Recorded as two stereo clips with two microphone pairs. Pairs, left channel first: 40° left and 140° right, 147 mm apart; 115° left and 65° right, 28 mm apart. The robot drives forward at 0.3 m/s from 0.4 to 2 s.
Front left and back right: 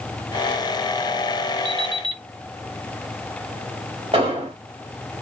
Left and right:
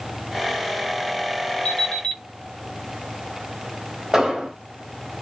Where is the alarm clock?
175° left, 1.3 m.